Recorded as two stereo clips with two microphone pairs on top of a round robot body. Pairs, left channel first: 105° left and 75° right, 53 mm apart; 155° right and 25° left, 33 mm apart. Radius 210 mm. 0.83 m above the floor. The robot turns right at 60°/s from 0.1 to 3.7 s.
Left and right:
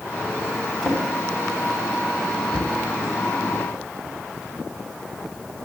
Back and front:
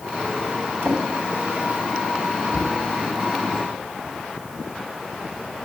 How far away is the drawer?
About 3 m.